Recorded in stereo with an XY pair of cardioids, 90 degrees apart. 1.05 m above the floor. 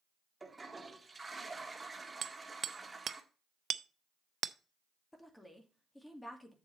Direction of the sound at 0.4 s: 20° right.